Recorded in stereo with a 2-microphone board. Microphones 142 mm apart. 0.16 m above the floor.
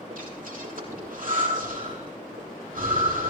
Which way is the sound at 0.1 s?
75° right (ahead or behind).